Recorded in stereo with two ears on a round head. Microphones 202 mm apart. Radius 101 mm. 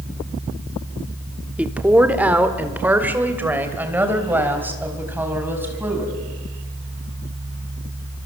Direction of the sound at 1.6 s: 5° right (ahead or behind).